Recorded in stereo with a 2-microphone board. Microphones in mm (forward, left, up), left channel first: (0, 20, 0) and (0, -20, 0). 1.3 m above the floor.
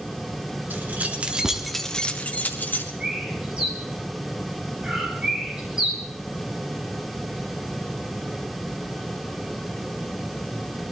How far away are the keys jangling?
About 1.7 m.